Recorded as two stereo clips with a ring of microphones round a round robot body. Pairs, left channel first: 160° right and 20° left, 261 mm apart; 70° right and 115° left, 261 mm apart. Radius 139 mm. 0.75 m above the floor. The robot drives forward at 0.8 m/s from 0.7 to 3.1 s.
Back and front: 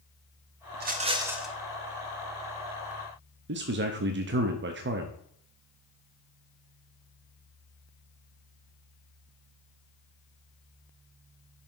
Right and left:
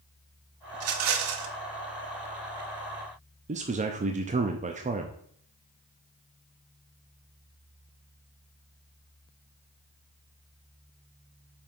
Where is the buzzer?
No buzzer in this recording.